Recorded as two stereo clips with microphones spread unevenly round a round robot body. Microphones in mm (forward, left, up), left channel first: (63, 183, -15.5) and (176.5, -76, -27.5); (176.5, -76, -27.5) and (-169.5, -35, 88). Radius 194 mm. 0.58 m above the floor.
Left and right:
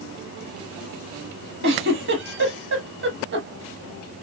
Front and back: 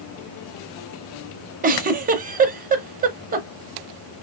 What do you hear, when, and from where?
1.6 s a giggle: 125° right, 0.7 m